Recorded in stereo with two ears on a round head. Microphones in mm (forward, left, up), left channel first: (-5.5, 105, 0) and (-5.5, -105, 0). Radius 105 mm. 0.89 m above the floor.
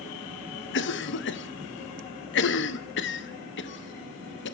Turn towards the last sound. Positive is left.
turn(degrees=50)  # may be behind; listen again after turning